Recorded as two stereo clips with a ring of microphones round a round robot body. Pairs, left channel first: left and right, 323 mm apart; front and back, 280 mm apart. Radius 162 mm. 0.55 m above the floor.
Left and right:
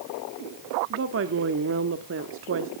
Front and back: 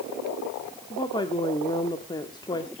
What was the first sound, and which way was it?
A woman speaking, 70° right.